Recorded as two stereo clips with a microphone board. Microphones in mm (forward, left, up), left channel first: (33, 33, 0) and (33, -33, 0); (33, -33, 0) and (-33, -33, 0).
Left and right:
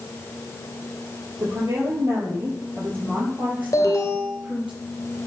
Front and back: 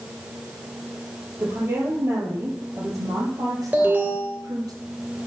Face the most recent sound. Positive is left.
turn(degrees=120)